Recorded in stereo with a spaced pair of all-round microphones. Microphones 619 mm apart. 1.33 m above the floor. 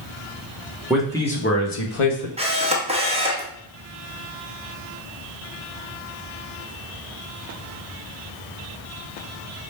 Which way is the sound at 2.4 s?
10° right (ahead or behind).